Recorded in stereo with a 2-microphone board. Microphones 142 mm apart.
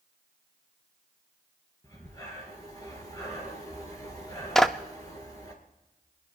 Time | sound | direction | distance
1.8 | breathing | 25° left (ahead or behind) | 3 m
4.5 | a clap | 5° left (ahead or behind) | 0.7 m